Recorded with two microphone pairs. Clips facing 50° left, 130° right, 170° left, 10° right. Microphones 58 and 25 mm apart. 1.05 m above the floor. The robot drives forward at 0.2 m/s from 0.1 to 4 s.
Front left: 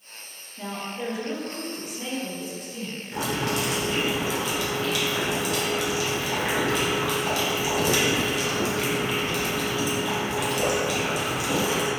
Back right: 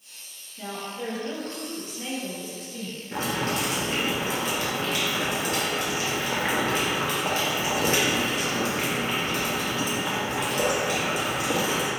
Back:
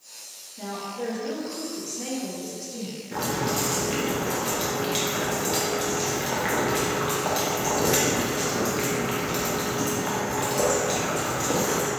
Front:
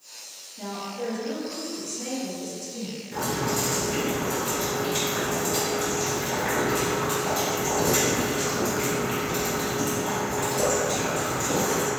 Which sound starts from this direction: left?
A woman speaking, at 0.6 s.